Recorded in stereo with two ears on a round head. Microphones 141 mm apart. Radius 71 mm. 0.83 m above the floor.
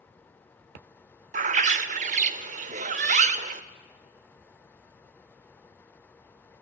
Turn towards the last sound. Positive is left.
turn(degrees=-50)  # may be behind; listen again after turning